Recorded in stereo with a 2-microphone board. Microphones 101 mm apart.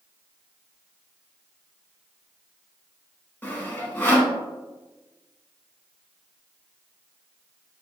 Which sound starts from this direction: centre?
Sawing, at 3.4 s.